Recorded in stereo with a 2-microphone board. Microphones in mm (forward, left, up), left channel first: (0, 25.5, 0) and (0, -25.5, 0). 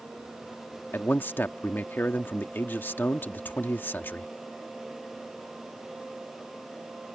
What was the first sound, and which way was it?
A man speaking, 40° left (ahead or behind).